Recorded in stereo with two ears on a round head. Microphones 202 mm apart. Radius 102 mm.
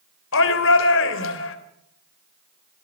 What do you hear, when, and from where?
0.3 s a shout: 65° left (ahead or behind), 3.5 m